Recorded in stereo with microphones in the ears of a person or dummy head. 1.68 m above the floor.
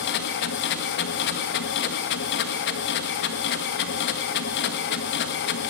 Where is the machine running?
60° left (ahead or behind), 1.5 m.